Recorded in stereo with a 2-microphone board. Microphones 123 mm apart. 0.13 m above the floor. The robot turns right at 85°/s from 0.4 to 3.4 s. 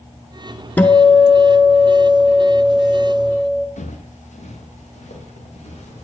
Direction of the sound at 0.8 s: 155° left.